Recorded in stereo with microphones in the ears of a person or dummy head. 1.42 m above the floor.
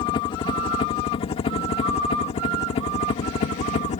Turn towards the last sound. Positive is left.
turn(degrees=35)  # may be behind; listen again after turning